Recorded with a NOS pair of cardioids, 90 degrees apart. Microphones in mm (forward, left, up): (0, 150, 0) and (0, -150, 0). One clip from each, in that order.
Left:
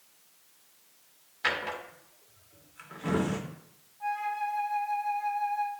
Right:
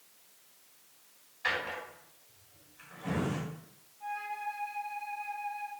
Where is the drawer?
60° left, 1.6 m.